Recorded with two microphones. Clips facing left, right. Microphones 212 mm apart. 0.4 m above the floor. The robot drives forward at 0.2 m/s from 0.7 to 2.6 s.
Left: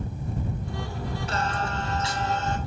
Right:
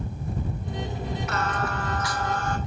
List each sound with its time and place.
1.3 s singing: 30° left (ahead or behind), 0.8 m; by 2.6 s 25° left (ahead or behind), 1.0 m